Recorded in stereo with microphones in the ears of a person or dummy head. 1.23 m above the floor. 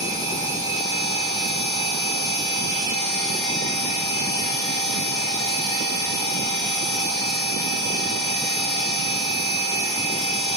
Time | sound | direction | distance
0.0 | a machine running | 15° left (ahead or behind) | 2.5 m